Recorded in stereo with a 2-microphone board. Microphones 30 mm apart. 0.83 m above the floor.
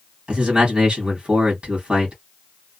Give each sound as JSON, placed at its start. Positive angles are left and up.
{"t": 0.3, "sound": "a man speaking", "side_deg": -30, "distance_m": 1.2}